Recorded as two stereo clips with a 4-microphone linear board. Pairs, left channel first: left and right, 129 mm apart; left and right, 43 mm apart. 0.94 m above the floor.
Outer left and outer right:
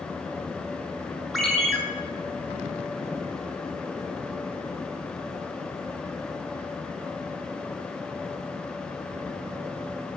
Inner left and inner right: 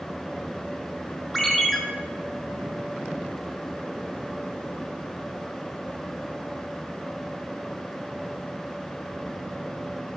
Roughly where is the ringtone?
Centre.